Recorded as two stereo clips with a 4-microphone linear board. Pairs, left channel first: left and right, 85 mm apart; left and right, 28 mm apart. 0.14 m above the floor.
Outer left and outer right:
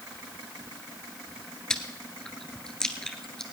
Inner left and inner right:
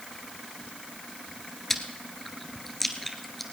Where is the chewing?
10° left (ahead or behind), 1.4 m.